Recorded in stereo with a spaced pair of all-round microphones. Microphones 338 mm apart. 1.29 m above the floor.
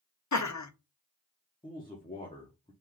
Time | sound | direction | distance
0.3 | laughter | 55° left (ahead or behind) | 0.6 m
1.6 | a man speaking | 15° left (ahead or behind) | 0.8 m